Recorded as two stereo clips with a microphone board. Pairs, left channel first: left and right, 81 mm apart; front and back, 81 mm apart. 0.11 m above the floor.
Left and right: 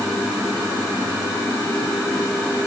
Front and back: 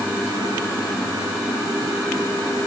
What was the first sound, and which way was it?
Only background noise.